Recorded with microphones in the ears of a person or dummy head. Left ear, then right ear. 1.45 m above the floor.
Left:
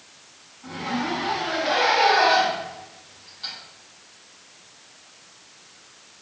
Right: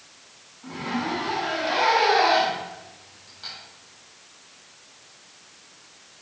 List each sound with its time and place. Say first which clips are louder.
0.6 s a zipper: left 1 dB; centre (ahead or behind), 2.5 m